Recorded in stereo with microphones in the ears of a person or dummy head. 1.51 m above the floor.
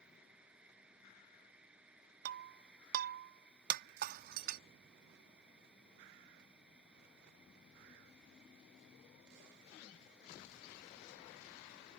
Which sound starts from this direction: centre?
A fan, at 0.0 s.